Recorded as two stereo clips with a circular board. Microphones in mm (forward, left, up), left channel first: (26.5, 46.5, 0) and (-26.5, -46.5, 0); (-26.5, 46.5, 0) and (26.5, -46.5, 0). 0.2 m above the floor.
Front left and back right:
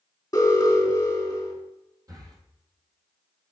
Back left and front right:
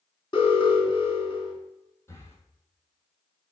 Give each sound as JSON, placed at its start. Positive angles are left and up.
{"t": 0.3, "sound": "an alarm", "azimuth_deg": 110, "distance_m": 3.0}
{"t": 2.1, "sound": "breathing", "azimuth_deg": -175, "distance_m": 1.4}